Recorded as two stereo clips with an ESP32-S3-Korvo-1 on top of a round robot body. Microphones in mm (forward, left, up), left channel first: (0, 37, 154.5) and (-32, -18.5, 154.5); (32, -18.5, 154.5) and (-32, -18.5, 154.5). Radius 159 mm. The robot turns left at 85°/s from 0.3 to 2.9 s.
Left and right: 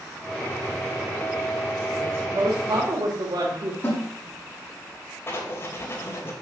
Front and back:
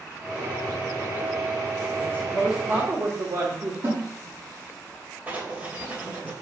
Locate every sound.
2.0 s a woman speaking: 60° right, 2 m; by 3.7 s 140° right, 2 m
3.8 s a snare drum: 125° left, 4.5 m
5.3 s writing: 115° left, 3 m